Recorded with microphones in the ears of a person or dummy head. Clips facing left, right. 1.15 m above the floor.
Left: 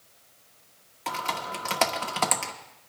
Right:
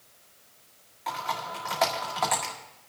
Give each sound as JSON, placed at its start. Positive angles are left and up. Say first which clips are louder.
{"t": 1.1, "sound": "typing on a keyboard", "louder": "left 1 dB", "side_deg": 50, "distance_m": 1.2}